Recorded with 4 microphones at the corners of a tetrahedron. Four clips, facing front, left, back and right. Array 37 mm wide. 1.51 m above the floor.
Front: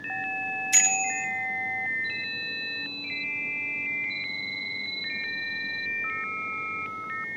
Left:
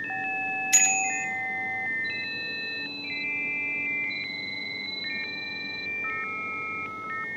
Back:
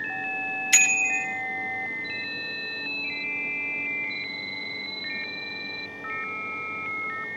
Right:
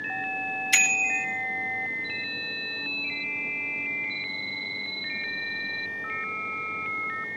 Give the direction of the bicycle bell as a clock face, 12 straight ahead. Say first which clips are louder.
Right 4 dB, back 5 dB; 5 o'clock.